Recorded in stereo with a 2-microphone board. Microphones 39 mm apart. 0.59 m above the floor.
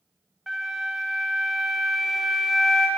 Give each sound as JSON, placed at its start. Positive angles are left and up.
{"t": 0.5, "sound": "a flute", "side_deg": -10, "distance_m": 0.7}